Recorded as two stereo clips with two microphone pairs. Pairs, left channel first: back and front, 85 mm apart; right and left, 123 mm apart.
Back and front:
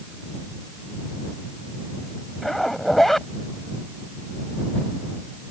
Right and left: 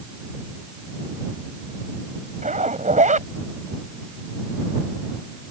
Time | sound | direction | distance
2.4 | a zipper | 90° left | ?